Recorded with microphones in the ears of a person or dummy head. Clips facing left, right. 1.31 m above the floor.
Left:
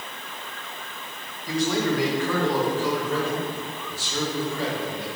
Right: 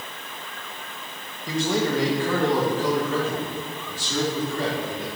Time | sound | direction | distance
1.5 | a man speaking | 20° right (ahead or behind) | 1.6 m